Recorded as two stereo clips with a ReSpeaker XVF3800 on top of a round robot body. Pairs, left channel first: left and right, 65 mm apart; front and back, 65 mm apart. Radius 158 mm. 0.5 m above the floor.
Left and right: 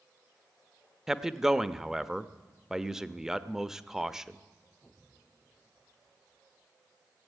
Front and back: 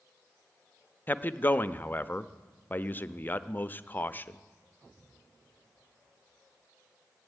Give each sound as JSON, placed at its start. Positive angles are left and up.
{"t": 1.1, "sound": "a man speaking", "azimuth_deg": -15, "distance_m": 0.8}